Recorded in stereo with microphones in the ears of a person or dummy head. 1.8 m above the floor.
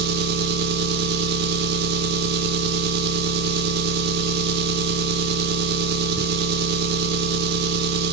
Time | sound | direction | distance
0.0 | an engine running | 55° right (ahead or behind) | 1.0 m